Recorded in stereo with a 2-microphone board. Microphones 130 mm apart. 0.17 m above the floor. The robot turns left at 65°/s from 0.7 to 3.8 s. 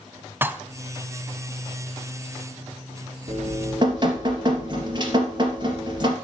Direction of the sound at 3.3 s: 65° right (ahead or behind).